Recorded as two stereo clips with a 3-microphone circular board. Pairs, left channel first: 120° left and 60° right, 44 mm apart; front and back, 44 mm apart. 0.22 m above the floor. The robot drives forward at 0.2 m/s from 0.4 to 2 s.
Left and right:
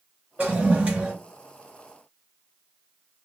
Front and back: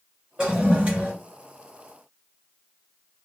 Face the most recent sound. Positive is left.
turn(degrees=-130)